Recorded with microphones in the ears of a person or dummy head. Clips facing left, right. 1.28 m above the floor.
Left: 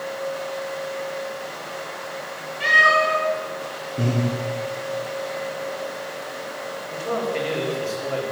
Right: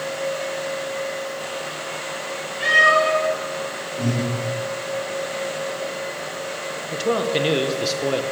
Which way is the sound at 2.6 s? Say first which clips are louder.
Right 2 dB; 10° right (ahead or behind).